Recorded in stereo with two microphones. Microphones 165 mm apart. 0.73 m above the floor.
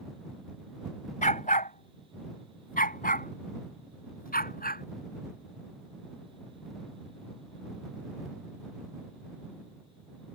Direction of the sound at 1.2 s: 55° left (ahead or behind).